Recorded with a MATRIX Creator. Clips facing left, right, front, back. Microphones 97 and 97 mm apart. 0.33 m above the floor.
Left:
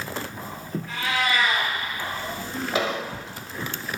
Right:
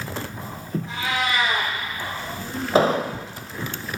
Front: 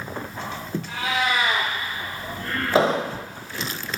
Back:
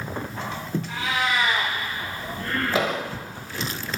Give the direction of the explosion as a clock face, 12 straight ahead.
2 o'clock.